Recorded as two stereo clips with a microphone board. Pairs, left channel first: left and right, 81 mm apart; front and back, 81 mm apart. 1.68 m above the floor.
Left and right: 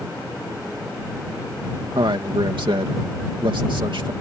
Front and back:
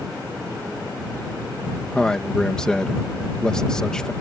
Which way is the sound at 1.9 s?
80° right.